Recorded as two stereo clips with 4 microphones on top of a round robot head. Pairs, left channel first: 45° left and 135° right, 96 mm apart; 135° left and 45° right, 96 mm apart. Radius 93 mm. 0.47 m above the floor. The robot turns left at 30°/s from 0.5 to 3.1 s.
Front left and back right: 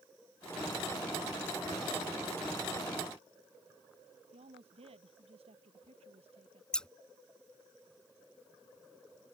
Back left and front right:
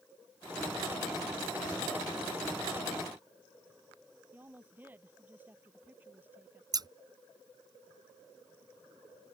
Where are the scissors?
35° right.